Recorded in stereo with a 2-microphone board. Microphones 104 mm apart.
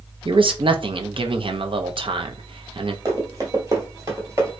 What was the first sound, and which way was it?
A man speaking, 55° right (ahead or behind).